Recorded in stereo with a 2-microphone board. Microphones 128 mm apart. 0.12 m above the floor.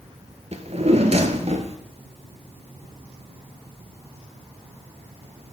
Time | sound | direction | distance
0.5 | a drawer | 55° right (ahead or behind) | 0.8 m